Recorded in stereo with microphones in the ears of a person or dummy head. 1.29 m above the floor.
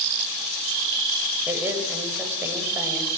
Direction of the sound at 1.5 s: 10° right (ahead or behind).